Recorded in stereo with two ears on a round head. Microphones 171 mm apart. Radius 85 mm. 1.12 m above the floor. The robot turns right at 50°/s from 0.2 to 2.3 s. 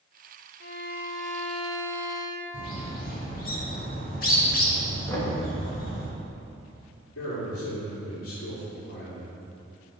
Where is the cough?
I don't hear a cough.